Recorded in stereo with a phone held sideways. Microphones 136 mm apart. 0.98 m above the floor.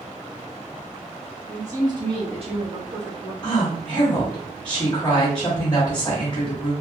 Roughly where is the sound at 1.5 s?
Centre.